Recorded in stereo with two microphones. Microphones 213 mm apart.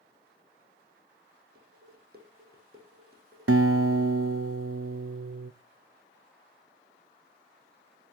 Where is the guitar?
85° right, 0.6 m.